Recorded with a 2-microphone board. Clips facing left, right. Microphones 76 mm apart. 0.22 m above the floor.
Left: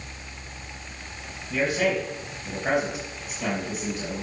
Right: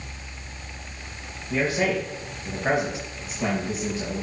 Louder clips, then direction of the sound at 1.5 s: Even; 25° right (ahead or behind).